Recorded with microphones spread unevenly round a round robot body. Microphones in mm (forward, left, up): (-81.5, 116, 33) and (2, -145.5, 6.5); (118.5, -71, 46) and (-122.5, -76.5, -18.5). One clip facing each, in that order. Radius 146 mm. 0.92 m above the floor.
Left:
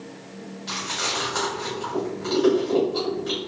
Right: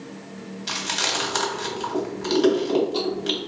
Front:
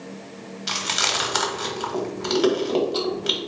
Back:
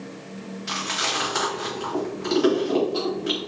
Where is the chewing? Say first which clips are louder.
Even, front 2 dB; 40° right, 1.3 m.